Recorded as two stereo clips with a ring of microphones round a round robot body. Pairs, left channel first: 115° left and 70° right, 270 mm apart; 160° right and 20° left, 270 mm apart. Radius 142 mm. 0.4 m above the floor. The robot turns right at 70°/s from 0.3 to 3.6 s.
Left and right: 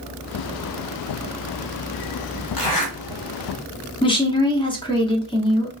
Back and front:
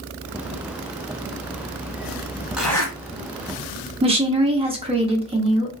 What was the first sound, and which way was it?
A zipper, 110° left.